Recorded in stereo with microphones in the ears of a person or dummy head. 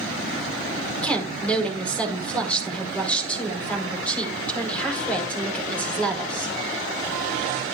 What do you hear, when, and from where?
1.0 s a woman speaking: 5° left (ahead or behind), 5.5 m